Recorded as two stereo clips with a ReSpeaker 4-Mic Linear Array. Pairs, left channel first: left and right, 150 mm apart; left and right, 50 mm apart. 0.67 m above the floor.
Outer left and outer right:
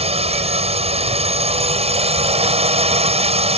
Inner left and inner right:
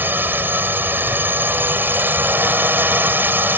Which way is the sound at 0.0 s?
45° right (ahead or behind).